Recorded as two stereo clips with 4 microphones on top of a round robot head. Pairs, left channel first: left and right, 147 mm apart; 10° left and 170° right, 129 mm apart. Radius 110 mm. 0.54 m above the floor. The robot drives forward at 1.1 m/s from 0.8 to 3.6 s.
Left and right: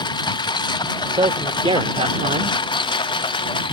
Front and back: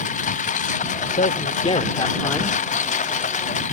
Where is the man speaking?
30° right; by 2.6 s 75° right.